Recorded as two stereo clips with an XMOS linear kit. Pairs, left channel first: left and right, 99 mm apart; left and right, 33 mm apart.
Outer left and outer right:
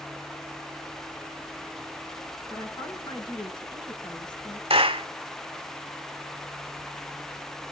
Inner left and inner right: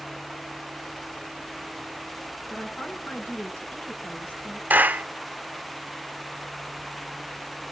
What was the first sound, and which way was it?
A woman speaking, 50° left (ahead or behind).